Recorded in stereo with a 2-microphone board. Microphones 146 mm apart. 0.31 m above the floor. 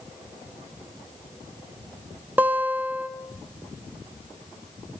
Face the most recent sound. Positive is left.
turn(degrees=-15)  # may be behind; listen again after turning